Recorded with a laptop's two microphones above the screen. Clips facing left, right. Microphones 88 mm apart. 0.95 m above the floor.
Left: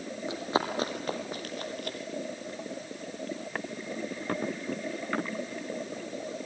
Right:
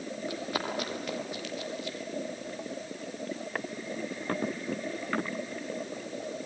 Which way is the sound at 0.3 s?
20° left (ahead or behind).